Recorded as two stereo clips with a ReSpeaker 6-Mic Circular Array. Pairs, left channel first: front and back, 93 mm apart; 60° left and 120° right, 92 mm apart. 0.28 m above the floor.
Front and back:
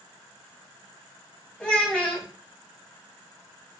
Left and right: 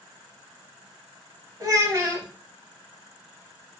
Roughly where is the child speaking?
Right.